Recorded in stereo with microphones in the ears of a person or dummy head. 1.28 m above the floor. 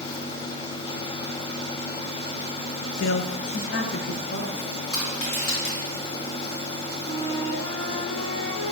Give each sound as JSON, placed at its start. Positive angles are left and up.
{"t": 3.0, "sound": "a man speaking", "side_deg": 45, "distance_m": 0.6}
{"t": 4.9, "sound": "crushing", "side_deg": 80, "distance_m": 3.5}
{"t": 7.0, "sound": "a flute", "side_deg": 70, "distance_m": 3.0}